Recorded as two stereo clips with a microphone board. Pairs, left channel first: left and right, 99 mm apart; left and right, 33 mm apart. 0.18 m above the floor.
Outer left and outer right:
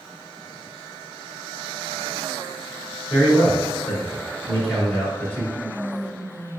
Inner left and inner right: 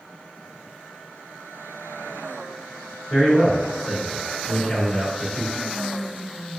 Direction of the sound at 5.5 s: 20° left (ahead or behind).